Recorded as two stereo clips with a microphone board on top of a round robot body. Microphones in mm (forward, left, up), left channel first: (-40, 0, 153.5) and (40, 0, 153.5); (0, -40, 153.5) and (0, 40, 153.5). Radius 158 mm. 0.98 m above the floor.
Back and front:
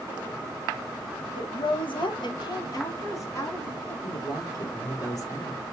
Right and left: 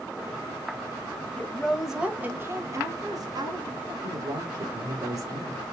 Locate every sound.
1.4 s a woman speaking: 165° right, 1.1 m; by 3.9 s 120° left, 2 m
4.0 s a woman speaking: 135° left, 3.5 m